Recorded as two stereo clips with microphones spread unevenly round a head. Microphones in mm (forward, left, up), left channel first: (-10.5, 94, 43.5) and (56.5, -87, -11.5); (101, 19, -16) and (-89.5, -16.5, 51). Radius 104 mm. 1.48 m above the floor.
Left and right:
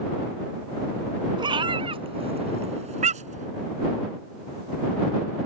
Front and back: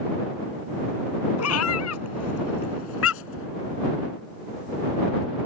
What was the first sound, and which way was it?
A cat meowing, straight ahead.